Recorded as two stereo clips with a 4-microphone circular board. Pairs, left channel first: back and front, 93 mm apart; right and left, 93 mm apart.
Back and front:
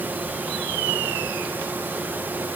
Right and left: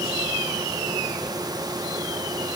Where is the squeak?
I don't hear a squeak.